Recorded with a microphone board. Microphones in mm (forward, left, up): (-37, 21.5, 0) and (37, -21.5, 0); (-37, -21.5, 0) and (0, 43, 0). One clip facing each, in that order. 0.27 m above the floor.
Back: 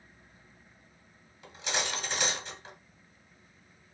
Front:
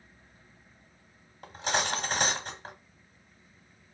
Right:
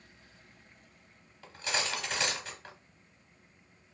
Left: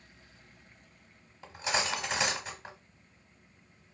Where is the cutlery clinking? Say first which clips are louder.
Front 5 dB, left 3 dB; 10° right, 1.0 m.